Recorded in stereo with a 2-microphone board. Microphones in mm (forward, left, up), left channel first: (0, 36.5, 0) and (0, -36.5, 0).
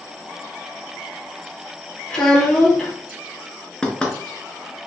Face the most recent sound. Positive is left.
turn(degrees=10)  # may be behind; listen again after turning